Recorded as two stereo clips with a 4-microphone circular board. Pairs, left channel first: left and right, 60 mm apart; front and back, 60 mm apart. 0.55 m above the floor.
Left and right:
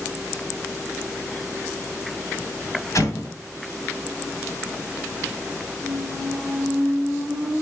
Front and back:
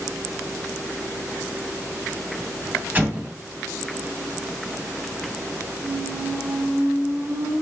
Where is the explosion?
120° left, 2.5 m.